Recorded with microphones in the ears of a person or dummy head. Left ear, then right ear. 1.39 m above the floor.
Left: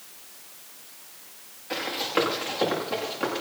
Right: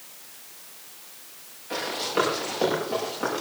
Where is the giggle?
No giggle in this recording.